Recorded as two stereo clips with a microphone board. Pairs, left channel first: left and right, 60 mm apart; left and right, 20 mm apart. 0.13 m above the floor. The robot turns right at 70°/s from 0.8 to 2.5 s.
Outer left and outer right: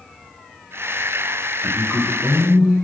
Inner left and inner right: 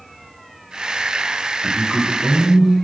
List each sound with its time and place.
1.6 s a man speaking: centre (ahead or behind), 1.0 m; by 2.8 s 15° right (ahead or behind), 1.0 m